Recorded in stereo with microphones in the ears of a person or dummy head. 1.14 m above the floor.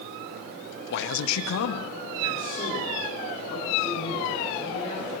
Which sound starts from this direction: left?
A man speaking, at 0.9 s.